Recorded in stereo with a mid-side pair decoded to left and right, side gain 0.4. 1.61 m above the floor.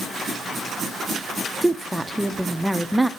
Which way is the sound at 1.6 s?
5° right.